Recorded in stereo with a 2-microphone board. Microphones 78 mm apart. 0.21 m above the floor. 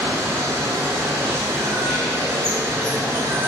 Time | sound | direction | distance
0.0 | running water | 35° right (ahead or behind) | 0.8 m